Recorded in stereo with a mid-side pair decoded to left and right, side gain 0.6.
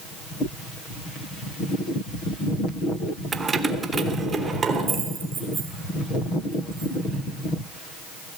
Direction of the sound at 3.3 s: 25° right.